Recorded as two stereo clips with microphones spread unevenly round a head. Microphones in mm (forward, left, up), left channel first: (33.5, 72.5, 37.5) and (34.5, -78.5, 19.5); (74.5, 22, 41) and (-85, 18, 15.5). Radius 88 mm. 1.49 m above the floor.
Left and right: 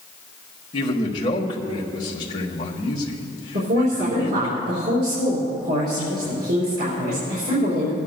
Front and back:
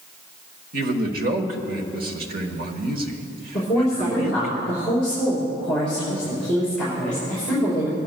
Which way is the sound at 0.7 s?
155° left.